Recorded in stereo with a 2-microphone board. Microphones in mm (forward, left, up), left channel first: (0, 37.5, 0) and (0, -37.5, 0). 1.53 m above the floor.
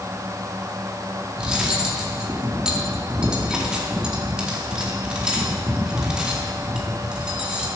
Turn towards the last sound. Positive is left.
turn(degrees=-15)  # may be behind; listen again after turning